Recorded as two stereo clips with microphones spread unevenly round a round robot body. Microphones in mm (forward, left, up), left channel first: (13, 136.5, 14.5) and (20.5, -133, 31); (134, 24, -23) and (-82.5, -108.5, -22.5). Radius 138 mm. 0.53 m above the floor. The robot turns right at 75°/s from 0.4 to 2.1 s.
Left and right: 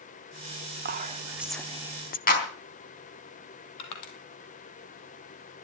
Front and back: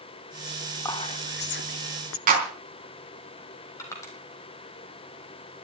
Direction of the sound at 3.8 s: 110° left.